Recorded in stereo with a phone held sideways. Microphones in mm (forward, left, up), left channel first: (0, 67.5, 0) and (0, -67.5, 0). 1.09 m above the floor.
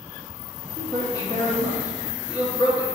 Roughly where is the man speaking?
Left.